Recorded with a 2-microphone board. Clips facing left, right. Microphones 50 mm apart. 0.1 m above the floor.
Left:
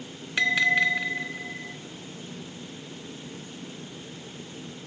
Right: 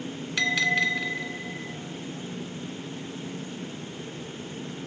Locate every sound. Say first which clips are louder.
0.4 s a bell: left 2 dB; 20° left (ahead or behind), 0.6 m